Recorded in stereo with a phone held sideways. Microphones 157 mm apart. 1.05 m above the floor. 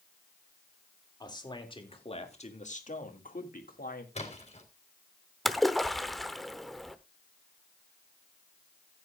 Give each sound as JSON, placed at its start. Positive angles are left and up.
{"t": 1.2, "sound": "a man speaking", "side_deg": 25, "distance_m": 2.5}
{"t": 4.2, "sound": "a splash", "side_deg": 45, "distance_m": 3.5}
{"t": 5.5, "sound": "a splash", "side_deg": 0, "distance_m": 0.8}